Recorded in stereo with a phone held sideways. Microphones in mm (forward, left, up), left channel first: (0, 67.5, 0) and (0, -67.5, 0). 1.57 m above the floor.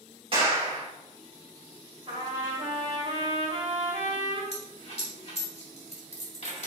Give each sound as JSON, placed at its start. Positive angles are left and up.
{"t": 0.3, "sound": "a clap", "side_deg": -40, "distance_m": 1.6}
{"t": 2.1, "sound": "a trumpet", "side_deg": -45, "distance_m": 1.8}
{"t": 4.5, "sound": "a dropped coin", "side_deg": 50, "distance_m": 1.7}